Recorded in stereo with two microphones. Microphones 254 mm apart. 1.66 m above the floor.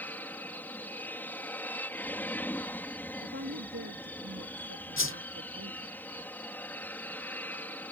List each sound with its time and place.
0.0 s an aircraft: 5° left (ahead or behind)
3.2 s a woman speaking: 80° right
5.0 s a whoosh: 55° left (ahead or behind)